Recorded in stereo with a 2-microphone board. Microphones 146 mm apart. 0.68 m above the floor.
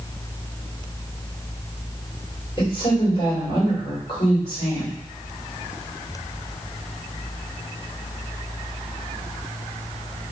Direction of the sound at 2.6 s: 40° left (ahead or behind).